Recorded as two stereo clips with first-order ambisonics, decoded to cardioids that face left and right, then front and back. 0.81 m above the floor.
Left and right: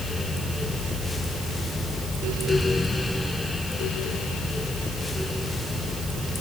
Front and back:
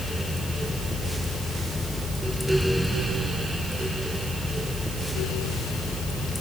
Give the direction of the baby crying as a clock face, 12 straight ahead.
I don't hear a baby crying.